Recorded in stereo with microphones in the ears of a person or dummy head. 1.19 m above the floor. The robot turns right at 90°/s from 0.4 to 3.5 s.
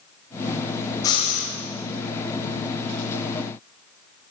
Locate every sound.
1.0 s breathing: 20° left, 5.5 m; by 1.5 s 65° left, 5.5 m